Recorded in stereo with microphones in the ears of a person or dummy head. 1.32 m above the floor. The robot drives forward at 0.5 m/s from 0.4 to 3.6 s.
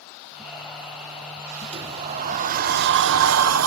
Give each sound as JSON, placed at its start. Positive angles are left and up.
{"t": 1.7, "sound": "a sliding door", "side_deg": -30, "distance_m": 1.0}